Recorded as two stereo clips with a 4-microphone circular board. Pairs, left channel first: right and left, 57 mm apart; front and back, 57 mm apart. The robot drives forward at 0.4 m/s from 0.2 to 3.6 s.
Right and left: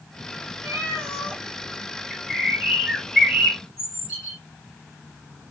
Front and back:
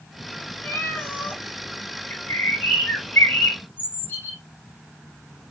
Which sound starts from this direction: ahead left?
A cat meowing, at 0.6 s.